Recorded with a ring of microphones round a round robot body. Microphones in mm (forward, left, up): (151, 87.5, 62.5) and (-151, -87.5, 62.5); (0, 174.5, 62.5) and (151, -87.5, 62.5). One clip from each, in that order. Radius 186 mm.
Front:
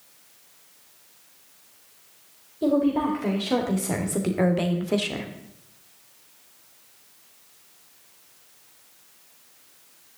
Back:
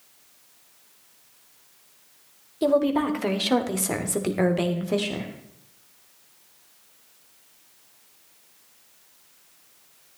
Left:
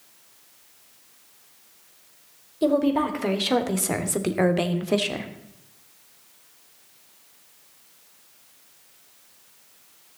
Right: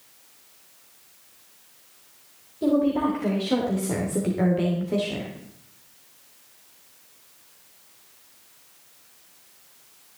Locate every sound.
2.6 s a woman speaking: 175° left, 2.5 m; by 5.3 s 105° left, 1.7 m